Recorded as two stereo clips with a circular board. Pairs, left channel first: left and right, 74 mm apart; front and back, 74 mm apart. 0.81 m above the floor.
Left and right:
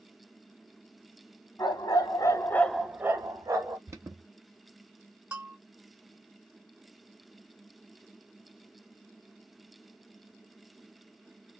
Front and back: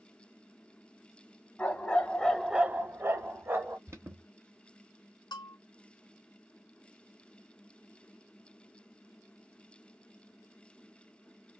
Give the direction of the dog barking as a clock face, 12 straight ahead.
10 o'clock.